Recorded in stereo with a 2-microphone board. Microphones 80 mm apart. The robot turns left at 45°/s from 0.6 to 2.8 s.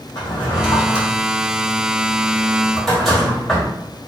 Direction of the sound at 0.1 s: 70° left (ahead or behind).